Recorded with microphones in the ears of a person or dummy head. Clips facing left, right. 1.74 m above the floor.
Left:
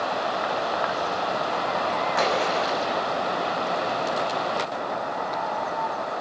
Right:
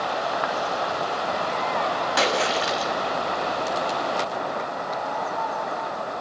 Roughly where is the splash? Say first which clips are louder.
Right 1 dB; right.